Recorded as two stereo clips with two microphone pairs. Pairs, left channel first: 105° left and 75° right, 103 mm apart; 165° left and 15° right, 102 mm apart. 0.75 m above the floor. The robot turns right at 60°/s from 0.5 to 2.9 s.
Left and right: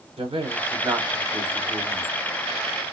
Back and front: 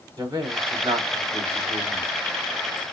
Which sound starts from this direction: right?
A man speaking, at 0.2 s.